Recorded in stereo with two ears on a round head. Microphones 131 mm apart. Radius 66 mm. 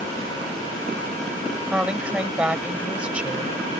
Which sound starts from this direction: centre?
A woman speaking, at 1.7 s.